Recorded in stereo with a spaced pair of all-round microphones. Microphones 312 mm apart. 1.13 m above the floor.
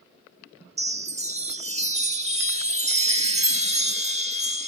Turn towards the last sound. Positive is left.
turn(degrees=-20)  # may be behind; listen again after turning